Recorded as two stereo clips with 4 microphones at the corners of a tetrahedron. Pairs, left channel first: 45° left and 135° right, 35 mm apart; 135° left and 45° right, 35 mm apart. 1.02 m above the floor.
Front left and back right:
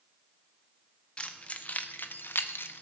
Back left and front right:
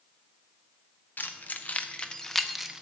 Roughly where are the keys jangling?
Left.